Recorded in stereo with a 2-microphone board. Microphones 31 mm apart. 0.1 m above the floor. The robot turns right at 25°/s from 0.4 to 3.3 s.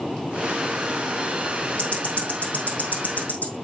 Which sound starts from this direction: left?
Ticking, at 1.8 s.